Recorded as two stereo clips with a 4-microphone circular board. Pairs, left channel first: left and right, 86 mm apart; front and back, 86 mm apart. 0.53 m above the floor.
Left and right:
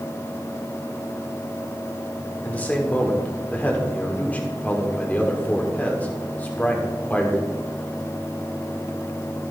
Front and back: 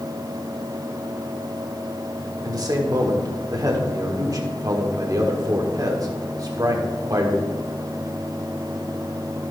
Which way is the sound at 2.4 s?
155° left.